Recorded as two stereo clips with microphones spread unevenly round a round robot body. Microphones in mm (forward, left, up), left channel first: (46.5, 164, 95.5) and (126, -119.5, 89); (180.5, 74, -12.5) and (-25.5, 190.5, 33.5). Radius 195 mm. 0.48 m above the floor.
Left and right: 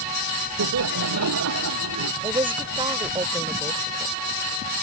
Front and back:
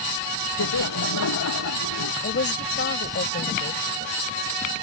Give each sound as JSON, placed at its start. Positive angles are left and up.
{"t": 0.6, "sound": "laughter", "azimuth_deg": -45}
{"t": 2.2, "sound": "a woman speaking", "azimuth_deg": -5}